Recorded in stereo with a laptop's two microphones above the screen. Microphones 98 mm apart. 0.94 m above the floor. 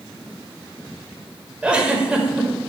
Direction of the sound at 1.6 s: 10° right (ahead or behind).